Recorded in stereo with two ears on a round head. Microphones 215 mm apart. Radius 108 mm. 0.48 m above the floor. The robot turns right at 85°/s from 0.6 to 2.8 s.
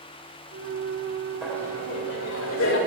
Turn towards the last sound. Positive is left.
turn(degrees=115)